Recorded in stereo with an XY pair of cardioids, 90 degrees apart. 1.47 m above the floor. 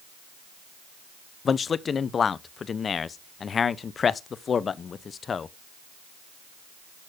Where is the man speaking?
50° left, 0.8 m.